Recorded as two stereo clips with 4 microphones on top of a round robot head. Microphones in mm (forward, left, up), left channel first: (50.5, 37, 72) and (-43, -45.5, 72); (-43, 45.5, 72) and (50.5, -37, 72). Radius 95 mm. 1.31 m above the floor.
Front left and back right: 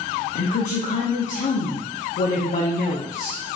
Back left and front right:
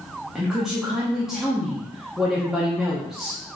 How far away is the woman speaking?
About 0.6 m.